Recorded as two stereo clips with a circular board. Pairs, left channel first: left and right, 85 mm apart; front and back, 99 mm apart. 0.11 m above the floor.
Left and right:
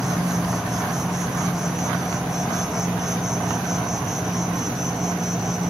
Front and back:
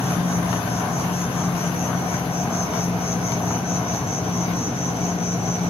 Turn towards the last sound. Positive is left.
turn(degrees=-5)